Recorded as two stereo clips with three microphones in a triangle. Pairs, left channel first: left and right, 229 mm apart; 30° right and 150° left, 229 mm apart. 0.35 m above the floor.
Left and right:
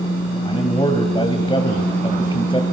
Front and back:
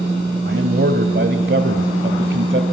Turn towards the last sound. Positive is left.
turn(degrees=150)